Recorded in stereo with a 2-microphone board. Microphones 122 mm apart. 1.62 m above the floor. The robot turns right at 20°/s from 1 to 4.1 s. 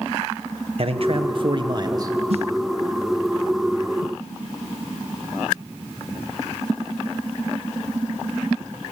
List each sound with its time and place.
0.8 s a man speaking: 50° right (ahead or behind), 1.4 m; by 2.2 s 25° right (ahead or behind), 1.4 m
2.3 s a snare drum: 55° right (ahead or behind), 1.4 m; by 2.5 s 60° right (ahead or behind), 1.4 m